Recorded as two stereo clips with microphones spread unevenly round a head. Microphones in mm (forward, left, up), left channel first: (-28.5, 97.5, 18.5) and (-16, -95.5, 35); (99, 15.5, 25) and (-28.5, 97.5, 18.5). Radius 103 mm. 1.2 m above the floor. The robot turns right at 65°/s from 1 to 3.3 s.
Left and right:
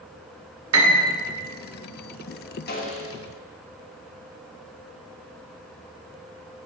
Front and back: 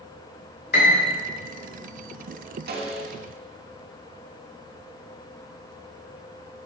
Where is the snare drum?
135° left, 1.7 m; by 3.2 s 165° left, 1.7 m.